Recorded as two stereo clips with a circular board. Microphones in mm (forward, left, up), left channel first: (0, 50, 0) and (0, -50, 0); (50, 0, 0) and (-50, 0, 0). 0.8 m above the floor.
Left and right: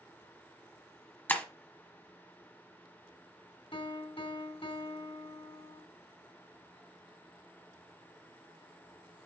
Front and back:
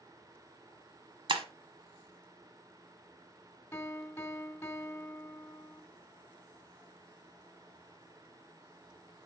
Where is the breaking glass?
160° left, 1.2 m.